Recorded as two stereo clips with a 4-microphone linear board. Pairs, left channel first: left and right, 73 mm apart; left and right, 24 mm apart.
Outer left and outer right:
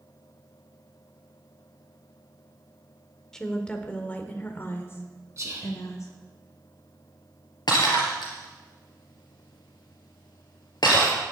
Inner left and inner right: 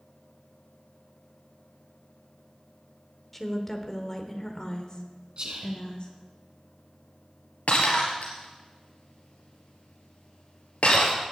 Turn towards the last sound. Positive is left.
turn(degrees=70)  # may be behind; listen again after turning